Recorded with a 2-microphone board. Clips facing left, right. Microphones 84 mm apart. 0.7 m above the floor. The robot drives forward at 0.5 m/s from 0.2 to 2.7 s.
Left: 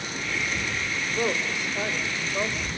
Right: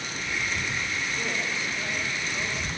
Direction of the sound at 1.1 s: 60° left (ahead or behind).